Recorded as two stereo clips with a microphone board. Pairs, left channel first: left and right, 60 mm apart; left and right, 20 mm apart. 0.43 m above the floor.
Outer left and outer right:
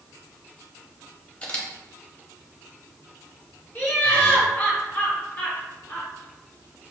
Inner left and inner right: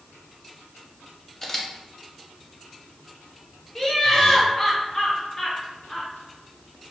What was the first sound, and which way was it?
A camera shutter, 20° left (ahead or behind).